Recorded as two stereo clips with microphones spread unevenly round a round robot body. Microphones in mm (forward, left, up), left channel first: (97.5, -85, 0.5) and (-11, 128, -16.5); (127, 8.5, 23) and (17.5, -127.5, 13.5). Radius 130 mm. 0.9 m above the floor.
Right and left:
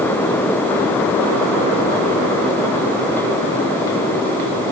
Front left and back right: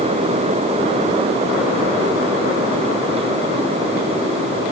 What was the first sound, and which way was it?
Only background noise.